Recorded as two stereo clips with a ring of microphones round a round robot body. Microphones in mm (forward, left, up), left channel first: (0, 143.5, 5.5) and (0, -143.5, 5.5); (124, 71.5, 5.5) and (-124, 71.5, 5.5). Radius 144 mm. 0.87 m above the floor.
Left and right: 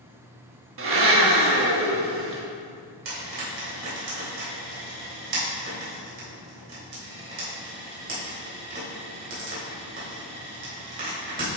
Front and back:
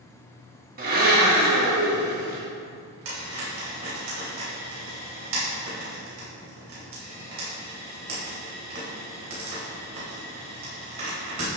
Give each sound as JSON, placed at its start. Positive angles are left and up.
{"t": 0.8, "sound": "a blender", "azimuth_deg": -125, "distance_m": 1.1}
{"t": 3.0, "sound": "frying", "azimuth_deg": -140, "distance_m": 2.5}